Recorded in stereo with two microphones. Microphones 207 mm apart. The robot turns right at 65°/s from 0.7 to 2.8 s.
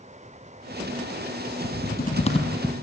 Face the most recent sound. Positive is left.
turn(degrees=-175)